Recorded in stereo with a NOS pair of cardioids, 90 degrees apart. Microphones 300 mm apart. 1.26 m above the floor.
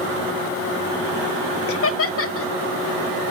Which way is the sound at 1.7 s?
50° left.